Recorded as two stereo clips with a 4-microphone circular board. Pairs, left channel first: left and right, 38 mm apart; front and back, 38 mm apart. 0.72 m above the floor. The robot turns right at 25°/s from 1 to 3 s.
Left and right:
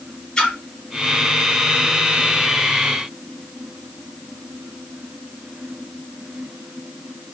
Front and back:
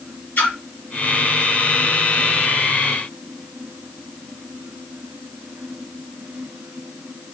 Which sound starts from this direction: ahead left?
A splash, at 0.4 s.